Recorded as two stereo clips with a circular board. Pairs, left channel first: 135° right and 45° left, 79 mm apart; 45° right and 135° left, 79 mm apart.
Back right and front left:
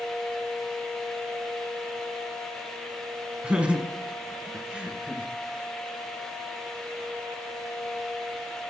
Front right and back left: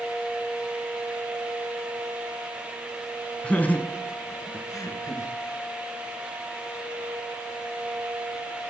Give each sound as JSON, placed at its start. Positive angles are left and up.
{"t": 3.4, "sound": "laughter", "azimuth_deg": -5, "distance_m": 1.3}